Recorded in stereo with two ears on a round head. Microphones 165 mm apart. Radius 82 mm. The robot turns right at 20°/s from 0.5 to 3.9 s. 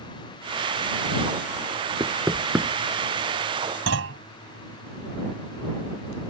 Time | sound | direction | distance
2.0 | knocking | 20° right (ahead or behind) | ?
3.9 | a clunk | 80° right | ?